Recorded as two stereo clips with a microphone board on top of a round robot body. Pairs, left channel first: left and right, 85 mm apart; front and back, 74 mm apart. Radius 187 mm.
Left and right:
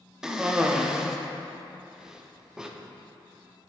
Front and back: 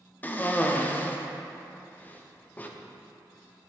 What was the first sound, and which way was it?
A cough, 20° right.